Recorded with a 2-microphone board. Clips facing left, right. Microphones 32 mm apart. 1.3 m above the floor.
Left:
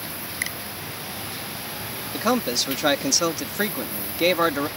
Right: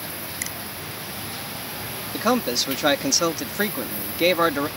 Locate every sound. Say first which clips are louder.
0.4 s a finger snap: left 6 dB; 25° left (ahead or behind)
2.1 s a man speaking: right 1 dB; 5° right (ahead or behind)